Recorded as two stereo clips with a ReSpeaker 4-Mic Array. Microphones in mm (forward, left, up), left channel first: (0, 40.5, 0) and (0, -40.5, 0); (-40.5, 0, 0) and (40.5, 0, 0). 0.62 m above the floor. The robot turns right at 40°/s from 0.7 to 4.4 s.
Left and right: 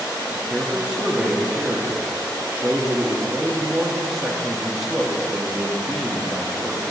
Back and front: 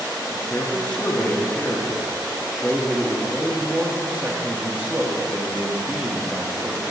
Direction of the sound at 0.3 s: 160° right.